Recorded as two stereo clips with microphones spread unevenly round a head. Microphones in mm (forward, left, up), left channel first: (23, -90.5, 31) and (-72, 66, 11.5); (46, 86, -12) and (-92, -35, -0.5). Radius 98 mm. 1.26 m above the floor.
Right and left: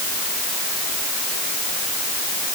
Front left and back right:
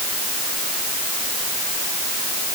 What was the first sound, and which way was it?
Only background noise.